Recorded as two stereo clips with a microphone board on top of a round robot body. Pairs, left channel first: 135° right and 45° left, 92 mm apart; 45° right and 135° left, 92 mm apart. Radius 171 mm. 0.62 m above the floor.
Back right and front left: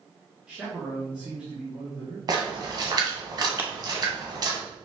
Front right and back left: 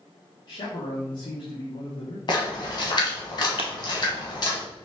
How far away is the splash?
About 1.3 m.